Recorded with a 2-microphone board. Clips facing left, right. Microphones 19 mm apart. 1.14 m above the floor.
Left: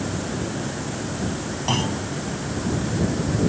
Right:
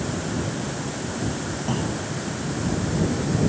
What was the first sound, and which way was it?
A clunk, 55° left (ahead or behind).